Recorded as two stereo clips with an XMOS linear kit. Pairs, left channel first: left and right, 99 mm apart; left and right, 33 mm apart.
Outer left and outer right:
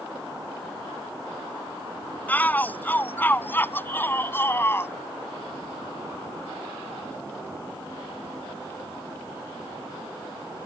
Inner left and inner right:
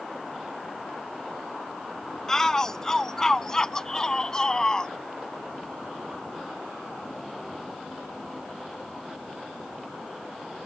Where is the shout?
15° left (ahead or behind); by 4.9 s 25° left (ahead or behind).